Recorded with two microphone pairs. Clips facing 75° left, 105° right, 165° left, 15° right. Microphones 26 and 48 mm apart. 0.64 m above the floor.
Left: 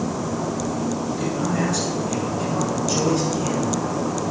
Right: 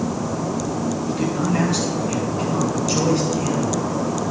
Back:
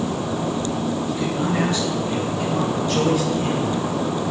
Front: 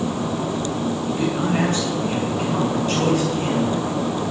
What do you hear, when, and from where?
1.1 s a man speaking: 60° right, 6.5 m; by 4.3 s 35° right, 6.5 m